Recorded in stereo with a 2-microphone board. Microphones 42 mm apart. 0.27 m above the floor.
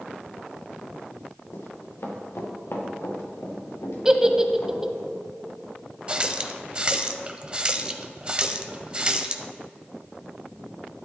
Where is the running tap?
20° right (ahead or behind), 0.7 m.